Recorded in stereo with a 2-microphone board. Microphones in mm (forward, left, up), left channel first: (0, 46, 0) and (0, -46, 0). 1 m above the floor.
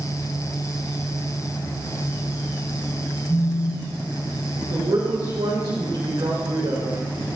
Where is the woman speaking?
80° right, 4 m.